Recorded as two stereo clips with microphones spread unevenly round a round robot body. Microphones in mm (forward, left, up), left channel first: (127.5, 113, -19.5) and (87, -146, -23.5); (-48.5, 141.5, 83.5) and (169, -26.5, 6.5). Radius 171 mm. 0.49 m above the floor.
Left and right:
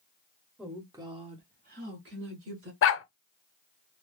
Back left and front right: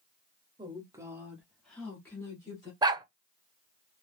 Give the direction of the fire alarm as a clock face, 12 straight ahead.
No fire alarm in this recording.